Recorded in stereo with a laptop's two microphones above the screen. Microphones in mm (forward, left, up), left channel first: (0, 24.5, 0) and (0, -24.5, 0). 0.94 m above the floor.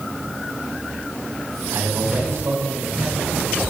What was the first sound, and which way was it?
A man speaking, 80° right.